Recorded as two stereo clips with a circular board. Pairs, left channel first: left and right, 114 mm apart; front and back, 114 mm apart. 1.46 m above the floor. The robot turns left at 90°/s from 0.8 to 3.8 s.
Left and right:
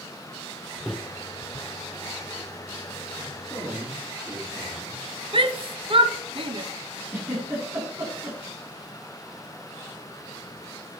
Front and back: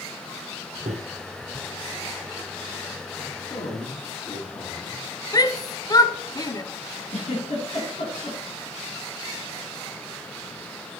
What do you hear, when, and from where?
0.9 s a microwave: straight behind, 0.6 m; by 1.0 s 170° left, 0.6 m
3.4 s a man speaking: straight ahead, 4 m; by 5.0 s 35° right, 4 m
5.3 s a shout: 55° right, 0.9 m
7.1 s a giggle: 20° right, 5.5 m